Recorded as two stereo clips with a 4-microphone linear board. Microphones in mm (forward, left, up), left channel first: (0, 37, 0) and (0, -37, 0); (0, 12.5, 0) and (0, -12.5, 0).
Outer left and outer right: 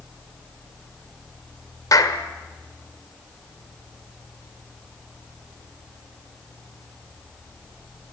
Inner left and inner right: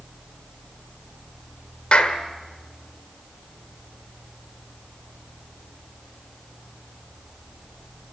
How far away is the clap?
About 2 m.